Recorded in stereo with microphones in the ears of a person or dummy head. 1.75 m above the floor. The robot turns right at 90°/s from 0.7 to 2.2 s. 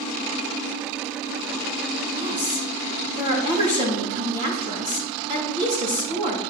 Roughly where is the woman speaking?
Right.